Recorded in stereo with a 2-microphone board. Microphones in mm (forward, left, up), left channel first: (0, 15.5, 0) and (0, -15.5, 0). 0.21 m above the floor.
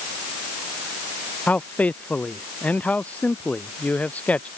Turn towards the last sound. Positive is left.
turn(degrees=50)  # may be behind; listen again after turning